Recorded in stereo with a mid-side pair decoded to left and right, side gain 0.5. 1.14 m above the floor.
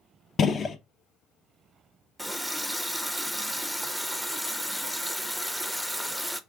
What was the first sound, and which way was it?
A gunshot, 45° left.